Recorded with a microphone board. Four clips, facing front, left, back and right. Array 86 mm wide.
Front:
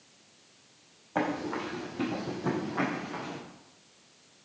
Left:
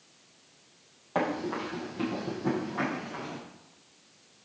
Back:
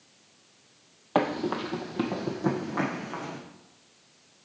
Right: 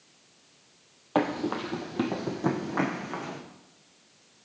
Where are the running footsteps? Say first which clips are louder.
Right 3 dB, back 4 dB; 150° right, 1.2 m; by 3.4 s 110° right, 2.5 m.